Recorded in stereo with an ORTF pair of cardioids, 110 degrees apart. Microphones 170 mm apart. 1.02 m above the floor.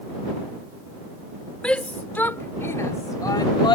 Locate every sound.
1.6 s a shout: 5° left; by 3.8 s 25° left